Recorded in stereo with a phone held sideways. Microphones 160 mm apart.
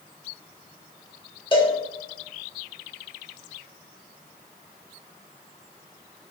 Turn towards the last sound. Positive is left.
turn(degrees=35)  # may be behind; listen again after turning